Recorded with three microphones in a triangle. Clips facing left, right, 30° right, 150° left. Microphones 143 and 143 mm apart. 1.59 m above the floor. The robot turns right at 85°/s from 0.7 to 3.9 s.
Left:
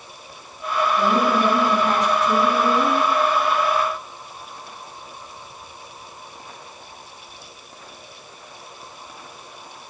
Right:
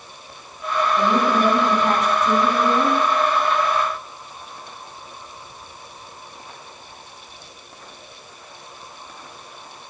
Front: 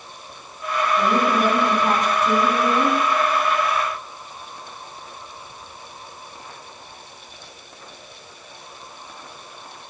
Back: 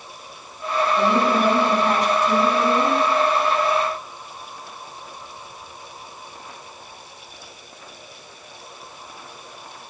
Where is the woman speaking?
155° right, 4.5 m; by 3.0 s 15° left, 4.5 m.